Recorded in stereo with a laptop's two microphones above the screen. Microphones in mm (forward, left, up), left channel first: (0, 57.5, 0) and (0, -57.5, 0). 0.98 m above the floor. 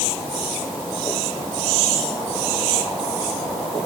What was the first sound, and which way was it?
Only background noise.